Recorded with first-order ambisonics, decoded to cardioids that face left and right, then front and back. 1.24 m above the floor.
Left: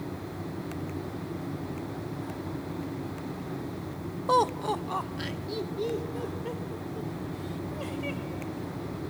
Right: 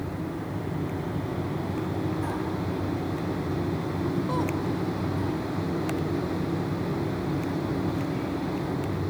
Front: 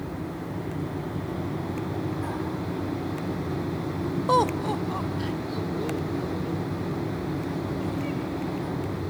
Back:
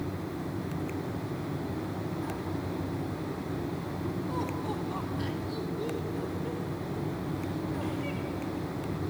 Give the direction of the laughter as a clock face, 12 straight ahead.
11 o'clock.